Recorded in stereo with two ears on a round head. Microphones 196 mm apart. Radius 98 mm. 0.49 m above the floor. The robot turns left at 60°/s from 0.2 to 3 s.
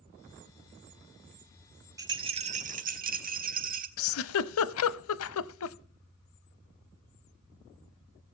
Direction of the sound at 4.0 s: 70° left (ahead or behind).